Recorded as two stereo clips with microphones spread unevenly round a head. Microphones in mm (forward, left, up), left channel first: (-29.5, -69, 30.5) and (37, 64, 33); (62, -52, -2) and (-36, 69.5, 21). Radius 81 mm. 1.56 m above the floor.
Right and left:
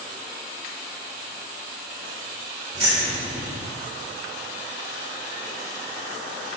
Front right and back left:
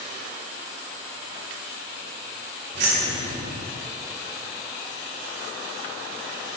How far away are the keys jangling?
About 2.5 m.